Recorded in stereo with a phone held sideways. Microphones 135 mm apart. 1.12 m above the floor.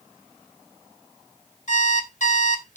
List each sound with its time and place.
1.7 s an alarm clock: 55° left (ahead or behind), 1.4 m